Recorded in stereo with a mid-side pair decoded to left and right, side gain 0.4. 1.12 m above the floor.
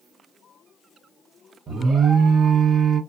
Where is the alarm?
55° right, 0.8 m.